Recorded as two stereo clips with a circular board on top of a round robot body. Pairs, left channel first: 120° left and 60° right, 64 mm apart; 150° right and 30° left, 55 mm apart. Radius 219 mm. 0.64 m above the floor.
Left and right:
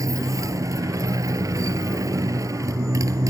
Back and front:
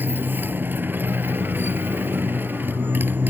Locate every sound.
0.0 s a motorcycle: 25° right